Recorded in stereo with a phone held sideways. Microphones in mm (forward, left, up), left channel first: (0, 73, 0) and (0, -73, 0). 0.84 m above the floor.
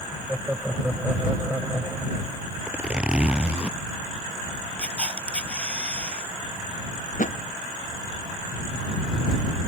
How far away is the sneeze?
No sneeze in this recording.